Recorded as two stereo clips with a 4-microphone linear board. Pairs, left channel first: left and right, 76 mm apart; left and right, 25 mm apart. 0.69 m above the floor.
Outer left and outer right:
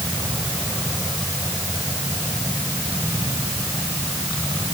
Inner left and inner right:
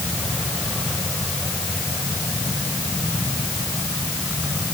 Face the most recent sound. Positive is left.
No sound to turn to.